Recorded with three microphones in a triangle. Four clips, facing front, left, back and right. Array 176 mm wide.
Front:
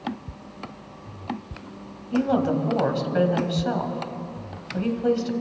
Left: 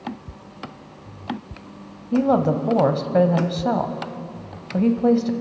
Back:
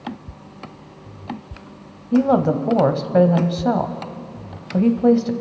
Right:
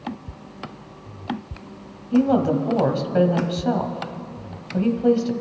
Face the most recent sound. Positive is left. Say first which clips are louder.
# even, back 6 dB
turn(degrees=155)